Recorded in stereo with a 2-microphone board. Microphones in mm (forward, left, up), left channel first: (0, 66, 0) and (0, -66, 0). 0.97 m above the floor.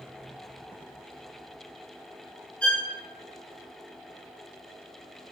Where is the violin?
10° left (ahead or behind), 2 m.